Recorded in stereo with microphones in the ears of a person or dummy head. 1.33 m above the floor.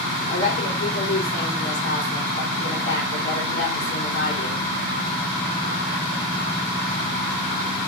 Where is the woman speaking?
50° left (ahead or behind), 4 m.